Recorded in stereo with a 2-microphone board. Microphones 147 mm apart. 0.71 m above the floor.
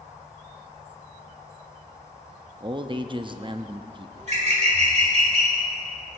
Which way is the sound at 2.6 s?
35° right (ahead or behind).